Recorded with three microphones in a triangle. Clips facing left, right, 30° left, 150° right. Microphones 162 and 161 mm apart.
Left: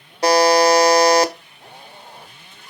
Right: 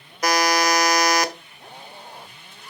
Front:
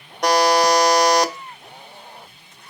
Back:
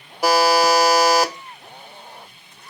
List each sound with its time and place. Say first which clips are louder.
0.2 s a buzzer: left 7 dB, even; 130° left, 1.1 m